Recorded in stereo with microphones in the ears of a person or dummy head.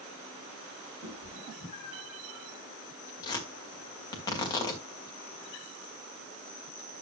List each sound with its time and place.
1.0 s a cat meowing: 15° right (ahead or behind), 8.5 m; by 2.2 s 10° right (ahead or behind), 7.5 m
3.2 s tearing paper: 20° left (ahead or behind), 2.5 m